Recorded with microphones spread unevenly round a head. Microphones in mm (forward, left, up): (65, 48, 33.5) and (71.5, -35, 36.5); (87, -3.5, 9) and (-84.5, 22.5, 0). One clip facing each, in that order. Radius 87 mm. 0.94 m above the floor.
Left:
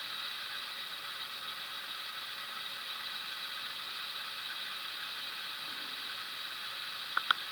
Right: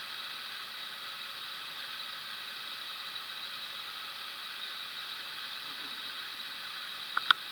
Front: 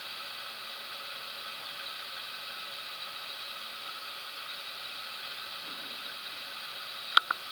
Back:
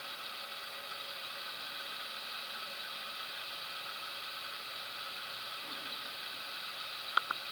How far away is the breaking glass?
I don't hear breaking glass.